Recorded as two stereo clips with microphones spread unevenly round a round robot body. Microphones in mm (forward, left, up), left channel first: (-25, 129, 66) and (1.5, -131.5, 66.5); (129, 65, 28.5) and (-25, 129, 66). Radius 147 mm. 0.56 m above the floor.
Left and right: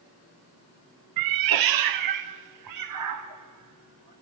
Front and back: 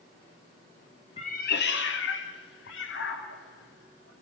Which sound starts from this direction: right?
A cat meowing, at 1.2 s.